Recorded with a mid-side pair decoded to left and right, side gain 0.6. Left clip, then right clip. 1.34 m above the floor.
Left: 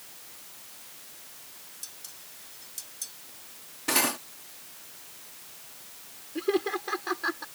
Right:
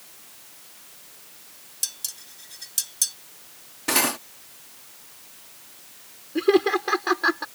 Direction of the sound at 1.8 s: 60° right.